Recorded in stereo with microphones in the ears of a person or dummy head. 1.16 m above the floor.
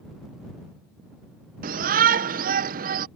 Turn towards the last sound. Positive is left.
turn(degrees=-45)  # may be behind; listen again after turning